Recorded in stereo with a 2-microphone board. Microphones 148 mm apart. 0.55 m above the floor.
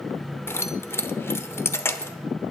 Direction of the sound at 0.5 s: 15° left (ahead or behind).